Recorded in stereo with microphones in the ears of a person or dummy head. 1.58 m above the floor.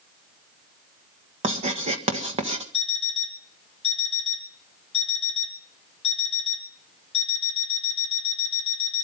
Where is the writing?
30° right (ahead or behind), 1.5 m.